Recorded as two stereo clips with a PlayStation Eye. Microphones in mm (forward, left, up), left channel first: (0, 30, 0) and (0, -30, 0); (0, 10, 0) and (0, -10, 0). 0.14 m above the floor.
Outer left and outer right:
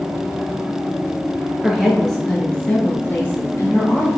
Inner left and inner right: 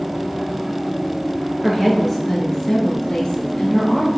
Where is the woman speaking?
5° right (ahead or behind), 1.8 m; by 4.1 s 50° left (ahead or behind), 2 m.